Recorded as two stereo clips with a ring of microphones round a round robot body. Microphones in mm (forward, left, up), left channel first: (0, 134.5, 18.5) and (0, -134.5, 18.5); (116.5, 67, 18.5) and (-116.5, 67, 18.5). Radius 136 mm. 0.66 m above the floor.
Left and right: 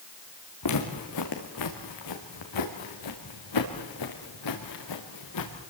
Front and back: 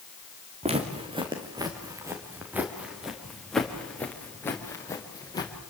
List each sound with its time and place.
0.6 s footsteps: 115° left, 4 m; by 5.5 s 75° left, 5 m